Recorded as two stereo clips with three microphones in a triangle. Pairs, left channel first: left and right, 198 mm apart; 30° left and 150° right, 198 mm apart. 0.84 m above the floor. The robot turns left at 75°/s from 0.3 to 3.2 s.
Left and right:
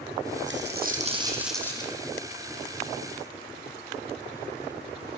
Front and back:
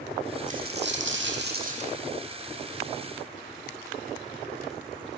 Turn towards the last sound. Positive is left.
turn(degrees=55)